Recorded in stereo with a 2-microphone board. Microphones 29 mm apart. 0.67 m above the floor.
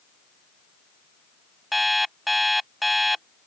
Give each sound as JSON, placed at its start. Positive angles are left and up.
{"t": 1.7, "sound": "an alarm clock", "side_deg": 5}